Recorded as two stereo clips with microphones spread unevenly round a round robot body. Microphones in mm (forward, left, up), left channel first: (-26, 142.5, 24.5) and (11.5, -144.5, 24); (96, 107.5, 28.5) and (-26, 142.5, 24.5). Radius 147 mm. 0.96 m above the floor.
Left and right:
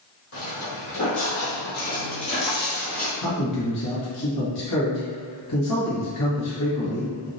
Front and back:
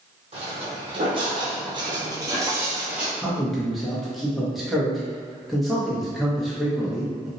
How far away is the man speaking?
About 1.4 m.